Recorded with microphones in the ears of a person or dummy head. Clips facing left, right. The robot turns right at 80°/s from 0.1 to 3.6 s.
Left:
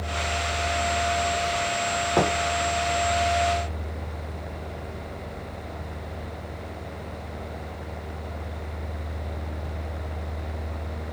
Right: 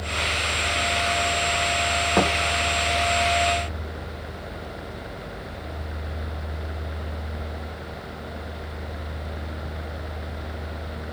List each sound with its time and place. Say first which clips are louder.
2.2 s a thud: right 1 dB; centre (ahead or behind), 1.2 m; by 2.3 s 10° right (ahead or behind), 1.2 m